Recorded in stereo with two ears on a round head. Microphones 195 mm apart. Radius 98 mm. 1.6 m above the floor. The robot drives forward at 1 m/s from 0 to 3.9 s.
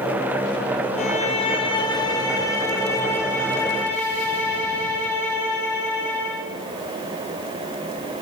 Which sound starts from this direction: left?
A violin, at 1.0 s.